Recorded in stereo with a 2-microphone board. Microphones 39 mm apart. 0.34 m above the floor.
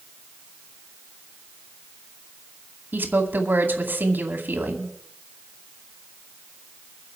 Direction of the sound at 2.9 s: 55° right (ahead or behind).